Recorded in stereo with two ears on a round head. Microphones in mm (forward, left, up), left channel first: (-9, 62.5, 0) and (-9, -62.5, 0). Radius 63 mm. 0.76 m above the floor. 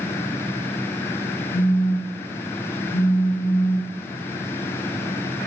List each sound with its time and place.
1.5 s a phone buzzing: 60° left (ahead or behind), 3 m